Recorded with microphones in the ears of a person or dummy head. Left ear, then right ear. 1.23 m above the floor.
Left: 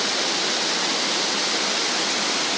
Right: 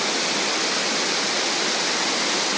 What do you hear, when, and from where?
Only background noise.